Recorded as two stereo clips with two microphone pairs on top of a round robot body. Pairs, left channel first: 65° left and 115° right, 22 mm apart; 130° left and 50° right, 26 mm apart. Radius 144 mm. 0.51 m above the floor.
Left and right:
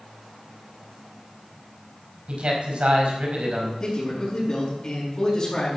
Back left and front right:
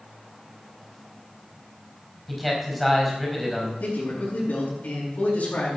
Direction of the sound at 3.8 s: 115° left.